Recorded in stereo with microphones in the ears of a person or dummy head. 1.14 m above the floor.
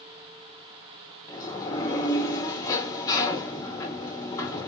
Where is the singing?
No singing in this recording.